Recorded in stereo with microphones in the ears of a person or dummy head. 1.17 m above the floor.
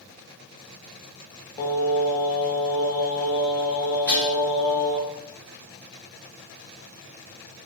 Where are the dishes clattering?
15° left (ahead or behind), 0.8 m.